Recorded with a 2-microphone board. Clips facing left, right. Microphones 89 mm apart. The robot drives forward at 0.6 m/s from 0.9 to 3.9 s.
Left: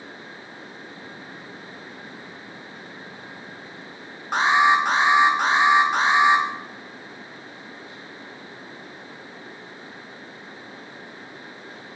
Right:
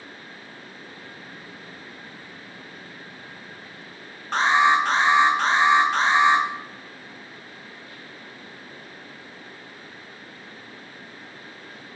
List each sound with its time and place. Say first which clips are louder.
4.3 s an alarm: left 1 dB; 10° left (ahead or behind), 2.5 m